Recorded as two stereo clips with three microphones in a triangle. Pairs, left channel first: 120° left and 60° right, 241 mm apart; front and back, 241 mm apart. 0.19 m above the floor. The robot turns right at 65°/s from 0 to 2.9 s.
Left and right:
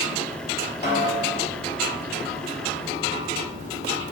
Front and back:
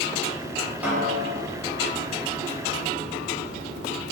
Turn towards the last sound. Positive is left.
turn(degrees=-125)